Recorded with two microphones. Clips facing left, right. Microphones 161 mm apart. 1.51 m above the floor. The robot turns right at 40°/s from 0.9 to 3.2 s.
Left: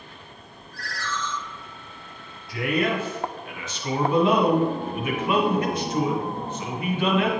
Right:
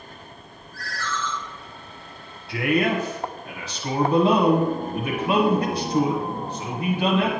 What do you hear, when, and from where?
0.7 s a ringtone: 65° left (ahead or behind), 2.5 m; by 1.3 s 50° left (ahead or behind), 2.5 m
2.5 s a man speaking: 60° right (ahead or behind), 1.2 m; by 7.3 s 35° right (ahead or behind), 1.2 m